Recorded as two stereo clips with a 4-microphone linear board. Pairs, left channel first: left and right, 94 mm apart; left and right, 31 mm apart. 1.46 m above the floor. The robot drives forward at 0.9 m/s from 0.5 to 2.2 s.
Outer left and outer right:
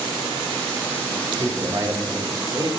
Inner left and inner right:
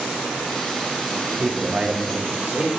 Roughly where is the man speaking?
Right.